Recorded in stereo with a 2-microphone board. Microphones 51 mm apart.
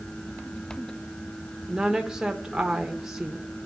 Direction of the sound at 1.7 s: 10° right (ahead or behind).